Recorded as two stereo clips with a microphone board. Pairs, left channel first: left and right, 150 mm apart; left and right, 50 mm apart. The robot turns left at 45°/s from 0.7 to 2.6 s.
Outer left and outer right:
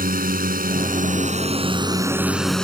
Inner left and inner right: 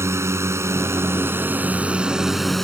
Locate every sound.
0.0 s a drone: 70° right (ahead or behind); by 2.6 s 5° left (ahead or behind)